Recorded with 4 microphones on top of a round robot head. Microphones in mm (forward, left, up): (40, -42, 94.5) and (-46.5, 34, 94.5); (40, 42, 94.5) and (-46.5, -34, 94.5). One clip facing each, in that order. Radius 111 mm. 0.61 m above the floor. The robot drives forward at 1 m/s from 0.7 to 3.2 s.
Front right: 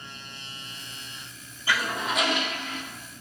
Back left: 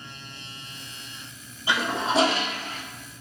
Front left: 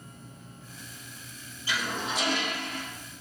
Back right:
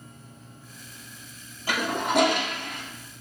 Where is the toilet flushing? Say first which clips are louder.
Back left 3 dB, back right 6 dB; 155° right, 1.1 m; by 2.8 s 170° right, 2 m.